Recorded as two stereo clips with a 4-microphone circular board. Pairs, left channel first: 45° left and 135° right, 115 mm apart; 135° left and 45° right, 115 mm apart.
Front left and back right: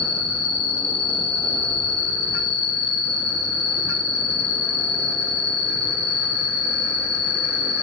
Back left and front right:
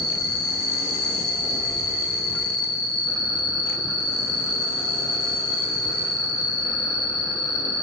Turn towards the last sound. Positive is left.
turn(degrees=-85)